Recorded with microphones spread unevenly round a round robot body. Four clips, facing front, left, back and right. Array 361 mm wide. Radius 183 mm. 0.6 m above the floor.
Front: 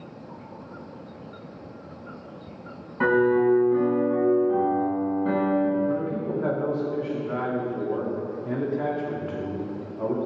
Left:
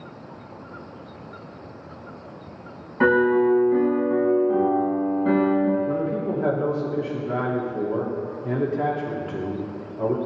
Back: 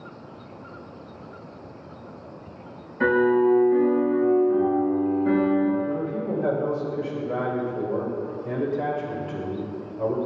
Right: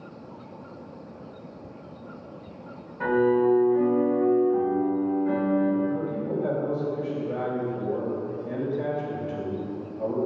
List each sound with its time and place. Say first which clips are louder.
3.0 s a piano: left 3 dB, back 1 dB; 70° left, 3.5 m
5.9 s a man speaking: left 3 dB, even; 80° left, 1.8 m